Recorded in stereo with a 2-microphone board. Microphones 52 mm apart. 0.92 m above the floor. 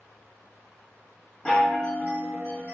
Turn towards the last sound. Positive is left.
turn(degrees=20)  # may be behind; listen again after turning